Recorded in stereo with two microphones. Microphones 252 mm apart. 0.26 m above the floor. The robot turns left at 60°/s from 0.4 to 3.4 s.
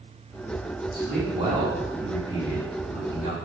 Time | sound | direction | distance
0.9 | a man speaking | 120° right | 3 m